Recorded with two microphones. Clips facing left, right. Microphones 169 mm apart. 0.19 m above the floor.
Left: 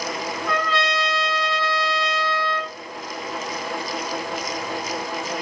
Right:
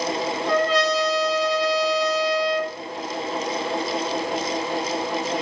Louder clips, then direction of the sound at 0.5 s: Right 5 dB; 40° right (ahead or behind).